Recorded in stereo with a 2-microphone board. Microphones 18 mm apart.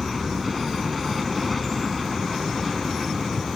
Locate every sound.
0.0 s an aircraft: centre (ahead or behind)